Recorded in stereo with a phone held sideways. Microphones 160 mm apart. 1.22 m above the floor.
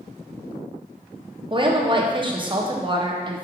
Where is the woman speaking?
30° right (ahead or behind), 0.5 m.